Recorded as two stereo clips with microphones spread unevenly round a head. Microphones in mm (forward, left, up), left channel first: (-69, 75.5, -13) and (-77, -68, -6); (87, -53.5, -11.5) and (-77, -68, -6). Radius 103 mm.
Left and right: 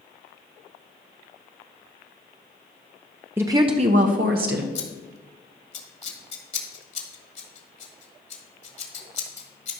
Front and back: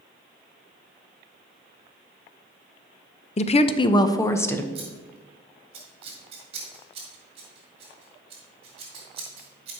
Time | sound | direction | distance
3.4 | a woman speaking | 15° right | 0.6 m
4.8 | scissors | 120° left | 1.7 m